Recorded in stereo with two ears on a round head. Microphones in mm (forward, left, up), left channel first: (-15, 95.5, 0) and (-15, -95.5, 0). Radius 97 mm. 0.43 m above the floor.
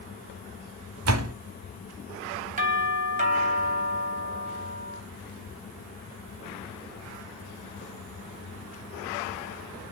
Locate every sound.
1.1 s a door slam: 65° right (ahead or behind), 1.9 m
2.6 s a doorbell: 35° right (ahead or behind), 4 m